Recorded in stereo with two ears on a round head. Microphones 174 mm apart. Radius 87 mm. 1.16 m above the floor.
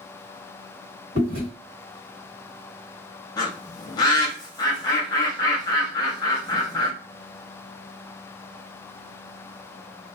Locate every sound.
1.1 s chewing: 55° right (ahead or behind), 1.8 m
3.4 s a bird: 20° left (ahead or behind), 0.7 m